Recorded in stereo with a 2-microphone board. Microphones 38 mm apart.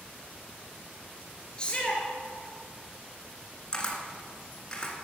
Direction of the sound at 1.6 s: 25° left (ahead or behind).